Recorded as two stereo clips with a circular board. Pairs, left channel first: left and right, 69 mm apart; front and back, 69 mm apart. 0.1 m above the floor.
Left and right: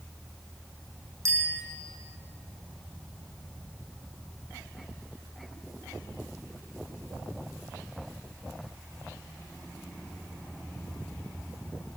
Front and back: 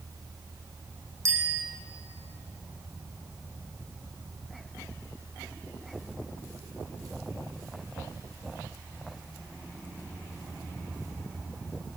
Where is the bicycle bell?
135° right, 3.5 m.